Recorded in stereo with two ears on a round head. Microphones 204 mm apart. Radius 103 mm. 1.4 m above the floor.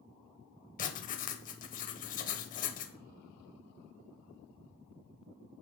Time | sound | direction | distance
0.8 | writing | 35° left (ahead or behind) | 0.7 m